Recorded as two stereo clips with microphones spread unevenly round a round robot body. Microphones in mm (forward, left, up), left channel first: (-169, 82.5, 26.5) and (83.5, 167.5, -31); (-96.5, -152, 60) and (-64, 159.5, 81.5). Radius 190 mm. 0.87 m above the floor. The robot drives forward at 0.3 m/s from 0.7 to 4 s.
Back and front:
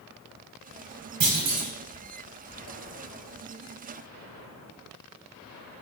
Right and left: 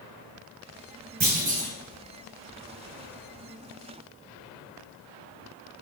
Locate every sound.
1.2 s a clunk: 35° left, 1.6 m